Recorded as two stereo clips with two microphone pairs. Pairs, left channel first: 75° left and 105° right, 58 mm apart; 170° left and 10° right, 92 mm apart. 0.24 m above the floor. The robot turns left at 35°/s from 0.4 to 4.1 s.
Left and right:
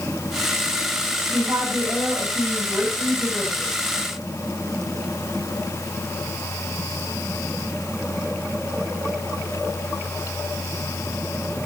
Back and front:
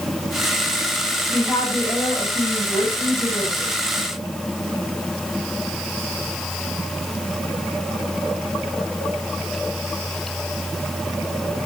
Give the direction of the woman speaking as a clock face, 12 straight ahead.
4 o'clock.